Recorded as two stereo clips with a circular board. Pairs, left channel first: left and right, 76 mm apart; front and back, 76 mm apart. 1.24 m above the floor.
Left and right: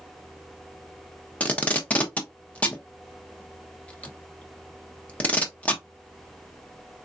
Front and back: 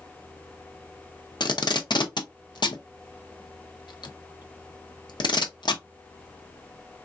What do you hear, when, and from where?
1.4 s tape being pulled: 20° left, 0.7 m